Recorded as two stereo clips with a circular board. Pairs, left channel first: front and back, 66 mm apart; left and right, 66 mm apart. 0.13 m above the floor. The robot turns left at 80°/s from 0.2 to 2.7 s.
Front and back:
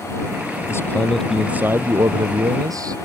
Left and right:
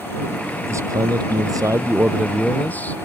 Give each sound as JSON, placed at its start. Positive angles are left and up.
{"t": 0.6, "sound": "a man speaking", "azimuth_deg": -35}